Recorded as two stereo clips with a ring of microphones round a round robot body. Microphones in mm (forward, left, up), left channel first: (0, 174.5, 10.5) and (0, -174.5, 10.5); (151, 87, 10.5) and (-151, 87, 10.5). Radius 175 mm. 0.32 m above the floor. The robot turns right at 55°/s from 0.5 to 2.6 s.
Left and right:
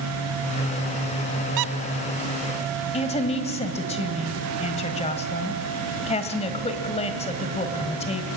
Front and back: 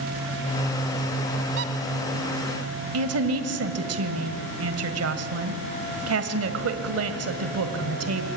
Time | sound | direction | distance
1.6 | a squeak | 125° right | 0.6 m
2.9 | a woman speaking | 160° left | 1.7 m